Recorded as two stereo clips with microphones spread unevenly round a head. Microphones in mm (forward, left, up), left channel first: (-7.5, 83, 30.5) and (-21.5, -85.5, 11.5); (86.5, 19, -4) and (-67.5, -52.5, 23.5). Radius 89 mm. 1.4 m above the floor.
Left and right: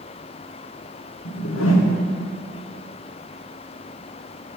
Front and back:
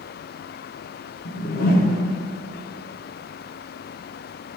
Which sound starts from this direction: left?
A whoosh, at 1.2 s.